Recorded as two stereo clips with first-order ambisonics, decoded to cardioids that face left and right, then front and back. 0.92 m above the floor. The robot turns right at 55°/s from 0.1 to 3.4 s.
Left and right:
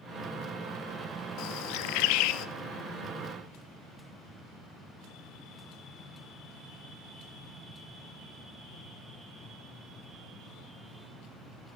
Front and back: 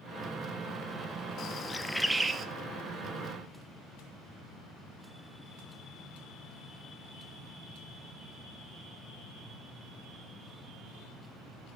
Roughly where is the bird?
Ahead left.